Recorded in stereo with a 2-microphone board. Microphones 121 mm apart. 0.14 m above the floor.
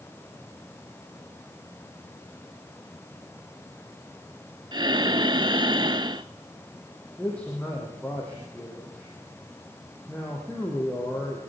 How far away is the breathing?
About 0.6 m.